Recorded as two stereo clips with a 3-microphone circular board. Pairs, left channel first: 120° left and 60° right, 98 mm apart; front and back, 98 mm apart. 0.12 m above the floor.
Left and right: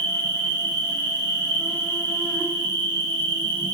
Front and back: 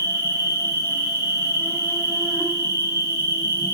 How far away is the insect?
About 1.4 m.